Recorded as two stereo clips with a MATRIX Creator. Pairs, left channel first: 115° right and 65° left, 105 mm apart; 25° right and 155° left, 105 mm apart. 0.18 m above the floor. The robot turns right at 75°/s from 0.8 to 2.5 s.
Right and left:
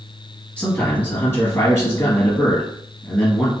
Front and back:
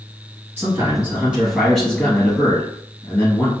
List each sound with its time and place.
0.6 s a man speaking: 170° right, 1.6 m; by 3.5 s 45° right, 1.6 m